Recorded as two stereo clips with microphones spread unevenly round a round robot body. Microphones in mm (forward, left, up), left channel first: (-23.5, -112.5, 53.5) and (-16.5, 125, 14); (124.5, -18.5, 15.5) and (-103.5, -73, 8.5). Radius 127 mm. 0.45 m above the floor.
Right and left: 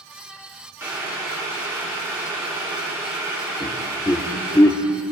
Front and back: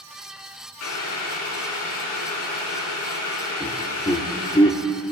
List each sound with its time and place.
0.8 s boiling: 10° left, 3.5 m
3.6 s laughter: 15° right, 1.0 m